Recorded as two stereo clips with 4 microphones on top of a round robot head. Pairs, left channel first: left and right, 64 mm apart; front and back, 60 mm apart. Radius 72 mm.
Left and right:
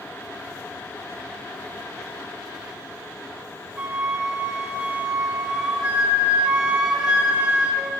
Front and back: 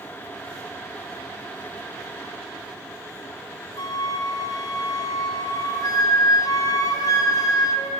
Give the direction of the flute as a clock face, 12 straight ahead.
12 o'clock.